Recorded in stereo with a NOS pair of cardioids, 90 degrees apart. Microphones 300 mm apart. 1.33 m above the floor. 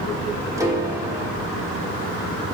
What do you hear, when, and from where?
0.6 s a piano: 10° right, 3 m